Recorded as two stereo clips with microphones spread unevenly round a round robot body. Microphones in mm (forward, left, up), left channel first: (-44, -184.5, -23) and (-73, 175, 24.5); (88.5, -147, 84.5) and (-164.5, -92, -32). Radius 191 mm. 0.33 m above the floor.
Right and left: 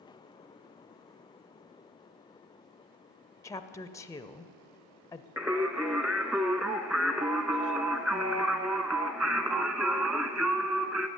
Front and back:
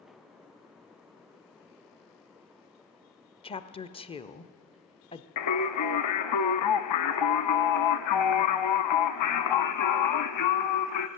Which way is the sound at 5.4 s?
10° left.